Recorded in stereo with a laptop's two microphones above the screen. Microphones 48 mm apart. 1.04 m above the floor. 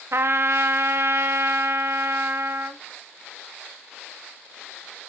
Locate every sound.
0.1 s a trumpet: 55° right (ahead or behind), 0.5 m